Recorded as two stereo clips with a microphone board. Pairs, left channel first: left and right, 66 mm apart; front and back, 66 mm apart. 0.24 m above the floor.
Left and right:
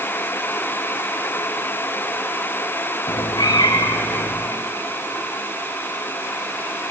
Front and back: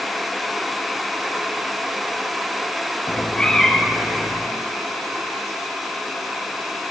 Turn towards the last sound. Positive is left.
turn(degrees=105)